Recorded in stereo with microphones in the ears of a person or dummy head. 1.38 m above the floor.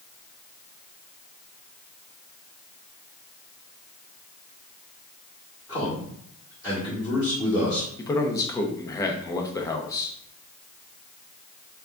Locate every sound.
5.7 s a man speaking: 20° left (ahead or behind), 1.7 m
8.0 s a man speaking: 15° left (ahead or behind), 0.6 m